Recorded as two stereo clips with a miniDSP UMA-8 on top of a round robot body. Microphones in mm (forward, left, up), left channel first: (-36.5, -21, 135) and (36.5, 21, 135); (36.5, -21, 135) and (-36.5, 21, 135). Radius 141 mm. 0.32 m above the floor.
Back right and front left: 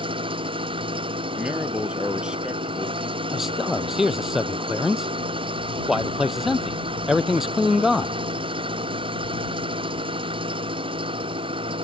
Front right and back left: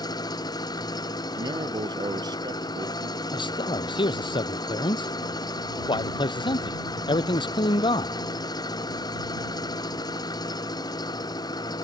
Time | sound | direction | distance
0.0 | an engine running | 15° left | ?
1.4 | a man speaking | 110° left | ?
3.3 | a man speaking | 55° right | ?